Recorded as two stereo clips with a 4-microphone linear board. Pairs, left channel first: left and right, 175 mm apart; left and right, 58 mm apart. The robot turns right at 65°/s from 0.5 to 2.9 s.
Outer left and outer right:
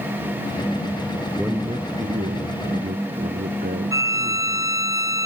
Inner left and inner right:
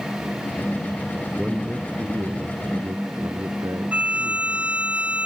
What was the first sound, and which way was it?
A man speaking, 175° right.